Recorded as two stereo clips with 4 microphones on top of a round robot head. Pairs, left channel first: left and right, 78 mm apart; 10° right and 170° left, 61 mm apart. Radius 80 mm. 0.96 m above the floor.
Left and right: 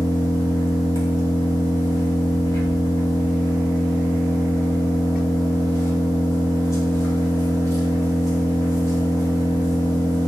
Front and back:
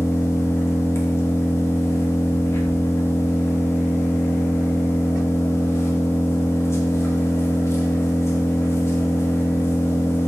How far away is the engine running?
About 2 m.